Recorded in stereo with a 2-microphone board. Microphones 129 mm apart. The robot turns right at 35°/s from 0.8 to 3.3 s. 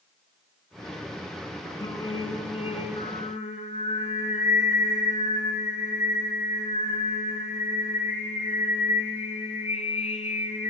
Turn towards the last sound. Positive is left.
turn(degrees=90)